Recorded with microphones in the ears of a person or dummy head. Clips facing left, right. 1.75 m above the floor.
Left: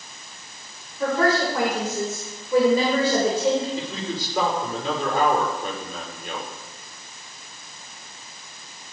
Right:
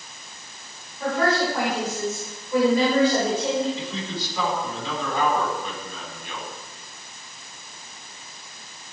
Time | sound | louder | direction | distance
1.0 | a woman speaking | left 2 dB | 65° left (ahead or behind) | 6 m
3.8 | a man speaking | left 2 dB | 45° left (ahead or behind) | 5.5 m